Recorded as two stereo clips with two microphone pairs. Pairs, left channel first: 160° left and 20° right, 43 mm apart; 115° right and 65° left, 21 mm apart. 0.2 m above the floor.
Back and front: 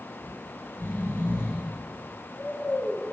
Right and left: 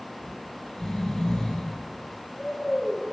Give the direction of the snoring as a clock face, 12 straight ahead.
6 o'clock.